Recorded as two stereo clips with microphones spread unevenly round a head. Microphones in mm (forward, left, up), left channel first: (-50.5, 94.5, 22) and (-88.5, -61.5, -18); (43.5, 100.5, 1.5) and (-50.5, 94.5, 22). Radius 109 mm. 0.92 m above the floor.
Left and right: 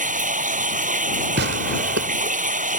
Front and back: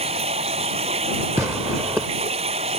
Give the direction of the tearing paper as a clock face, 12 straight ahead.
3 o'clock.